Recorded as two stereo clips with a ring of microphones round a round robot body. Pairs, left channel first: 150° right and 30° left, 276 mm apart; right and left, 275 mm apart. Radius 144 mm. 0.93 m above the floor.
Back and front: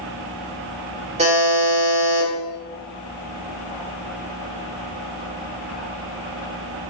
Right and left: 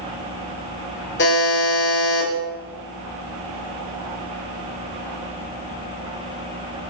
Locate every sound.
1.2 s a buzzer: 35° right, 2.0 m